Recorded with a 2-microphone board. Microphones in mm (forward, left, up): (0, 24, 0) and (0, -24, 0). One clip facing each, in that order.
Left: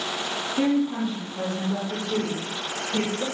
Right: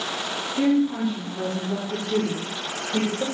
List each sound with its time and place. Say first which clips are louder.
0.6 s a woman speaking: right 2 dB; 5° left (ahead or behind), 0.7 m; by 3.2 s 50° right (ahead or behind), 1.6 m